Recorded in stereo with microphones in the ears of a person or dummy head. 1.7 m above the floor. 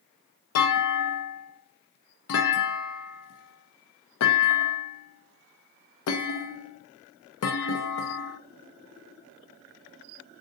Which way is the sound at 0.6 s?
80° left.